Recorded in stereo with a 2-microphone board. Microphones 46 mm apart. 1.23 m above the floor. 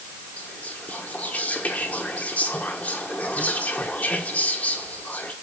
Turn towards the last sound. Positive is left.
turn(degrees=35)  # may be behind; listen again after turning